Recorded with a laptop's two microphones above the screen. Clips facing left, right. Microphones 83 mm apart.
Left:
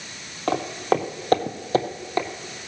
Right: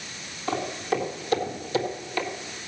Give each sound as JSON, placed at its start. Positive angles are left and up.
{"t": 0.5, "sound": "footsteps", "side_deg": 55, "distance_m": 1.9}